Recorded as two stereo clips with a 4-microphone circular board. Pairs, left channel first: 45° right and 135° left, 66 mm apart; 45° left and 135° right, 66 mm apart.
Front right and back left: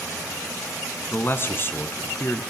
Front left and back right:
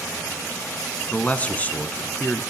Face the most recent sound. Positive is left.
turn(degrees=-10)